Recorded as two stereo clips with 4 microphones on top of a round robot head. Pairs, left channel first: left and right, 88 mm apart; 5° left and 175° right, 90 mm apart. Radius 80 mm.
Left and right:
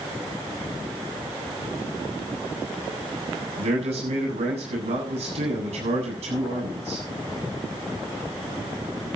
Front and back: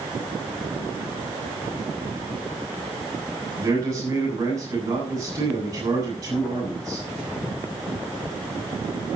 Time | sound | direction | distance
3.6 | a man speaking | 110° right | 8 m